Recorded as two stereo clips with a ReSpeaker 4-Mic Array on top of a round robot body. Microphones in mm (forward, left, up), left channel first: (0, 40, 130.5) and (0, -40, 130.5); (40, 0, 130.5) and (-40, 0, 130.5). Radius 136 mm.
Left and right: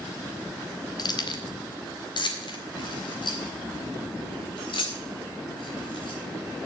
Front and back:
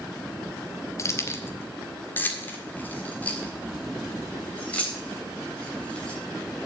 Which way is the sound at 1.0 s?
55° left.